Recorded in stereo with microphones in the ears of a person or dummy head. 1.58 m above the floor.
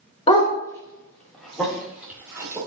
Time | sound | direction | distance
0.3 | a dog barking | 30° left (ahead or behind) | 1.9 m